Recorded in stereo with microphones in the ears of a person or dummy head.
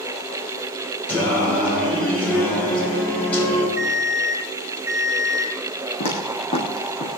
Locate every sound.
1.1 s singing: 10° left (ahead or behind), 6 m
3.8 s an alarm clock: 10° right (ahead or behind), 6 m
6.0 s footsteps: 40° left (ahead or behind), 3 m; by 7.1 s 30° left (ahead or behind), 2.5 m